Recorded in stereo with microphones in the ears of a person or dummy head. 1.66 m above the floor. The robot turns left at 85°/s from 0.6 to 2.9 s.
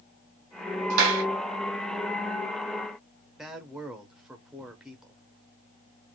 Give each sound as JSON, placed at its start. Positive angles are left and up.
{"t": 0.9, "sound": "a clap", "side_deg": -45, "distance_m": 2.0}
{"t": 3.4, "sound": "a man speaking", "side_deg": -5, "distance_m": 0.8}